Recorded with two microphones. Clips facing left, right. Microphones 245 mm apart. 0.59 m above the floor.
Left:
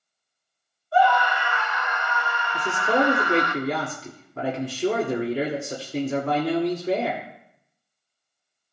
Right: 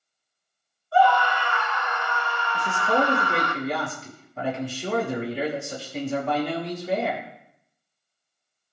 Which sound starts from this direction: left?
A man speaking, at 2.5 s.